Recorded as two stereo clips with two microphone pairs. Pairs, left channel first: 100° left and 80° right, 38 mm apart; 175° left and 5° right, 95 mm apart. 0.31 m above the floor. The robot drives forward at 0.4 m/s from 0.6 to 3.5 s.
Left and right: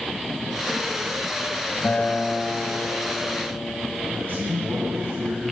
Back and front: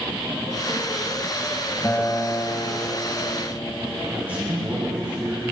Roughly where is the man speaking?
Right.